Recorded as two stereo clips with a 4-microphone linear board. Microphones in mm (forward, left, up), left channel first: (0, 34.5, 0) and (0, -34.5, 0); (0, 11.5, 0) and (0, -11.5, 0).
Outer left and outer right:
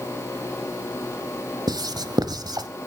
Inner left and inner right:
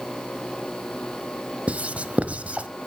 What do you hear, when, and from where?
1.7 s writing: 85° right, 1.0 m